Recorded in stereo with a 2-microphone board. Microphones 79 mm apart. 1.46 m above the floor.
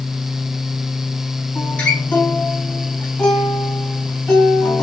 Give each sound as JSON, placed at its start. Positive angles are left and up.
{"t": 1.6, "sound": "a guitar", "side_deg": 20, "distance_m": 2.5}